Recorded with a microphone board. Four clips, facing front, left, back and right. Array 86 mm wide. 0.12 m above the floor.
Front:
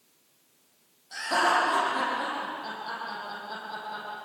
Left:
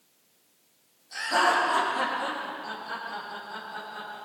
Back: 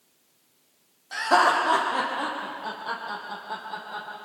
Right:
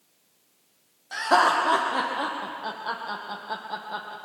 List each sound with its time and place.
1.1 s laughter: 125° right, 6 m; by 4.2 s 100° right, 5.5 m